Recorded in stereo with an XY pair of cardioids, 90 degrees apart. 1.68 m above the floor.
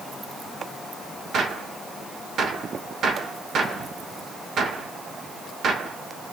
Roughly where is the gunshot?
Right.